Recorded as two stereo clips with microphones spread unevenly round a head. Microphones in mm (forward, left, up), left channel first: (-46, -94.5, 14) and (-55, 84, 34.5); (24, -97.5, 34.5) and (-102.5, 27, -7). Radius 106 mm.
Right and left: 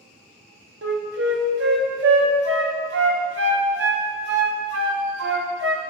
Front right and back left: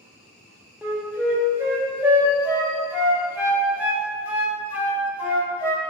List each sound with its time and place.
0.8 s a flute: 50° left, 0.9 m